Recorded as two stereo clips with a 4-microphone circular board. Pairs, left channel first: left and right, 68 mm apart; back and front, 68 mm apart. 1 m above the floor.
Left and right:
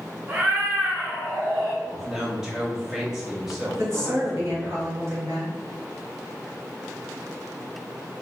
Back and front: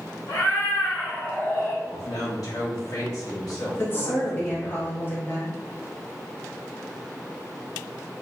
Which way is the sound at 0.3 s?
150° right.